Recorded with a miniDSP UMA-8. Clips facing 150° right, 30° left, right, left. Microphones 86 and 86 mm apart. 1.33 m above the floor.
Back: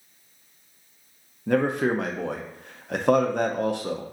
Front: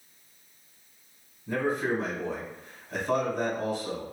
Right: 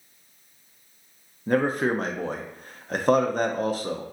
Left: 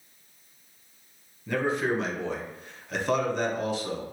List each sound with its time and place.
1.5 s a man speaking: 135° right, 0.6 m